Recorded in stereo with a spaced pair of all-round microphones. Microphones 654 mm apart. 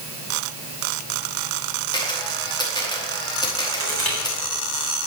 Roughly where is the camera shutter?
Centre.